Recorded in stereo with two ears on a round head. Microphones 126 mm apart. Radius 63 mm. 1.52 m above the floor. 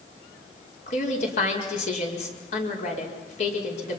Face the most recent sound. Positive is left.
turn(degrees=55)  # may be behind; listen again after turning